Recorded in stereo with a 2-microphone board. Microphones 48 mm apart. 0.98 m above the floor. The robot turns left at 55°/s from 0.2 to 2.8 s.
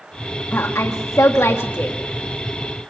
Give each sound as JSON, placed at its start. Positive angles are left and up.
{"t": 0.5, "sound": "a woman speaking", "azimuth_deg": 125, "distance_m": 1.7}